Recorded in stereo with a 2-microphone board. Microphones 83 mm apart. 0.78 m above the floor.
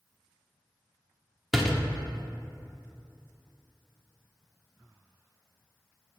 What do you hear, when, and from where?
1.5 s a door slam: centre (ahead or behind), 1.2 m